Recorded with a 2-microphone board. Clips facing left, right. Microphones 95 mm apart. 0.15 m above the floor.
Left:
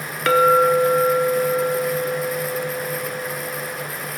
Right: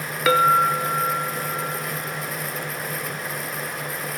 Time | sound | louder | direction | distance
0.3 | a clink | left 3 dB | 5° right (ahead or behind) | 0.6 m